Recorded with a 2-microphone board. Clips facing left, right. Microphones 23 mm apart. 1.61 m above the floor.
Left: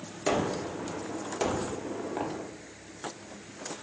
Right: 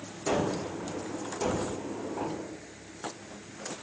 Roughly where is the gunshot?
Left.